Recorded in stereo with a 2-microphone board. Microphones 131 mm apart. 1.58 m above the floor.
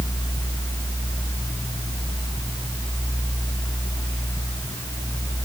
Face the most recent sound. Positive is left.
No sound to turn to.